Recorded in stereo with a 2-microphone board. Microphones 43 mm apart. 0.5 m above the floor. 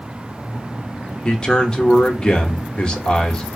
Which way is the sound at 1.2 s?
25° left (ahead or behind).